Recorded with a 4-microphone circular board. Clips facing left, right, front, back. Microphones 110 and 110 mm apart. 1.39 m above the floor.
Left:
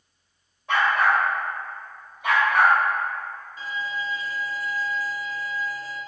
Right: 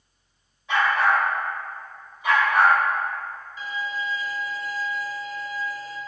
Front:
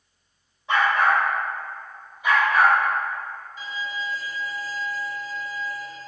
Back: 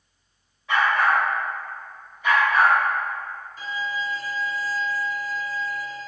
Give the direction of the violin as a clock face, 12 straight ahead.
7 o'clock.